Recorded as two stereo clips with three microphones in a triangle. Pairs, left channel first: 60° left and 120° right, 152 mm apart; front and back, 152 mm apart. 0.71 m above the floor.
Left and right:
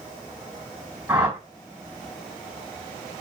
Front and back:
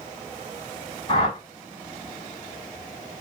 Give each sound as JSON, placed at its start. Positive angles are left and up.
{"t": 1.1, "sound": "a whoosh", "azimuth_deg": -40, "distance_m": 1.9}